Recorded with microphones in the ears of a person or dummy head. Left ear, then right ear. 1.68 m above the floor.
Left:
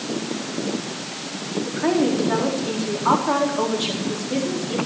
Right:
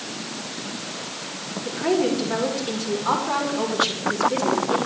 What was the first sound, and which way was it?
A woman speaking, 30° left (ahead or behind).